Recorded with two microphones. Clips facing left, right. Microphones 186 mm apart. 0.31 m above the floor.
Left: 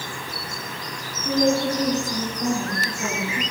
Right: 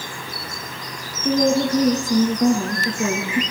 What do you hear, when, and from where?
1.2 s a woman speaking: 50° right (ahead or behind), 4.5 m